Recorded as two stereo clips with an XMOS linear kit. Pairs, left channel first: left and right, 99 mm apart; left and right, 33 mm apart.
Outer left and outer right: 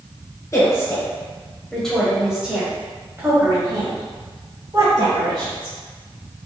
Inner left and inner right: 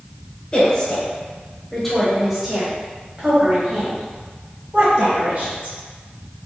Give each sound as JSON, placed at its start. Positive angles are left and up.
{"t": 0.5, "sound": "a woman speaking", "side_deg": 30, "distance_m": 1.4}